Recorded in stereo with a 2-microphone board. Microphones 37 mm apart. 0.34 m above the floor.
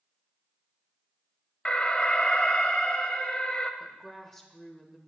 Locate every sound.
1.6 s an alarm: 30° left (ahead or behind), 1.0 m
3.8 s a woman speaking: 10° left (ahead or behind), 1.3 m